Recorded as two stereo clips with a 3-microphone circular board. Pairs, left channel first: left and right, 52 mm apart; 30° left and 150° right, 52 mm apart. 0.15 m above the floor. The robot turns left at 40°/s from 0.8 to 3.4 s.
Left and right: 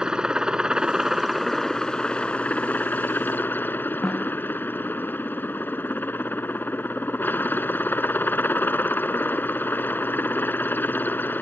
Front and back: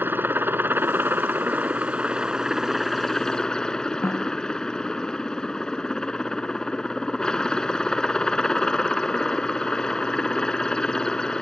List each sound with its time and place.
0.0 s a helicopter: 160° right; by 11.4 s 95° left
4.0 s a snare drum: 10° left